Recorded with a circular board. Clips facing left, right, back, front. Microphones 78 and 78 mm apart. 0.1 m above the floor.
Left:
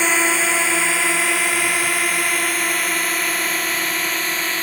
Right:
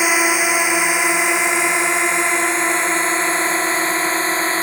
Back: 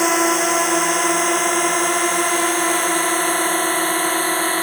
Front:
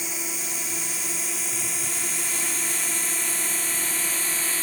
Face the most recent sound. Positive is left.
turn(degrees=-145)